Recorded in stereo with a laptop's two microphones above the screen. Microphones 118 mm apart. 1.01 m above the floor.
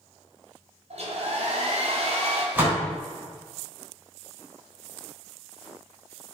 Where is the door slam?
20° right (ahead or behind), 3.5 m.